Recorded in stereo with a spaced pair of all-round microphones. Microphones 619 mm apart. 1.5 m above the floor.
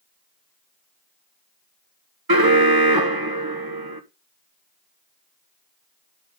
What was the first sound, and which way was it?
An alarm, 35° right (ahead or behind).